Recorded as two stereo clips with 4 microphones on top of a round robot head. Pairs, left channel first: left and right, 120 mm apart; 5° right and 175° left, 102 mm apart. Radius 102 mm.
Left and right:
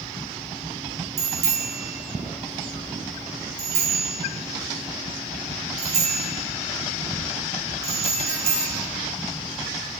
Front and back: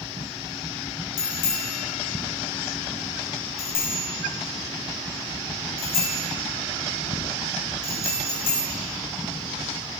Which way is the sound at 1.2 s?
45° right.